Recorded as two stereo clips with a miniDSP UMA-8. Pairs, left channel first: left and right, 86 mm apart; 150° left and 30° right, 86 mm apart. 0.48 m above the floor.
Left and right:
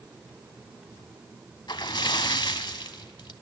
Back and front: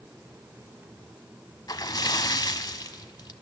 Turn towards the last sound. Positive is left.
turn(degrees=115)